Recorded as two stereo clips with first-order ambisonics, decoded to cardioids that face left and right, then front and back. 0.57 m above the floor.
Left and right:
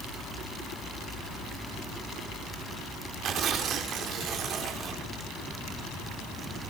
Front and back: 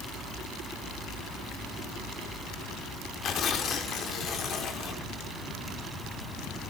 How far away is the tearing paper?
About 1.3 m.